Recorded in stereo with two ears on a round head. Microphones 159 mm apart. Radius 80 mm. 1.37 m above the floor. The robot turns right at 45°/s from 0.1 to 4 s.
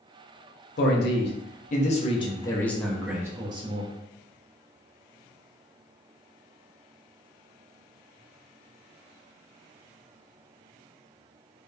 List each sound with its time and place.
0.8 s a man speaking: 85° left, 0.6 m; by 3.9 s 135° right, 0.6 m